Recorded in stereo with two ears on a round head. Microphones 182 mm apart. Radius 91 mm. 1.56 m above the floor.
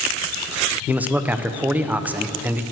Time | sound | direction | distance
0.9 | a man speaking | 10° right (ahead or behind) | 0.8 m